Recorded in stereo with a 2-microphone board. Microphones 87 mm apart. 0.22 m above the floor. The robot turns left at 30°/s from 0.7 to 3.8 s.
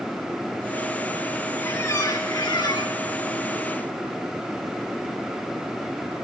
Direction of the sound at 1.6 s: 150° left.